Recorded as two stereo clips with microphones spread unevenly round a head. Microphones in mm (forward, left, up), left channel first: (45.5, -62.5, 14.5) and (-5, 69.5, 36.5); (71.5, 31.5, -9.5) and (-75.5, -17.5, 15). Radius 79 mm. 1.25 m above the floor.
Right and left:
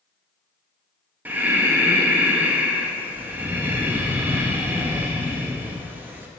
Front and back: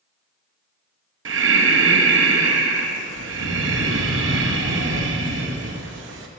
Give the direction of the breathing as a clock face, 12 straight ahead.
6 o'clock.